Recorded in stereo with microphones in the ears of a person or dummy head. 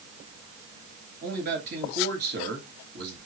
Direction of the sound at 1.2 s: 50° right (ahead or behind).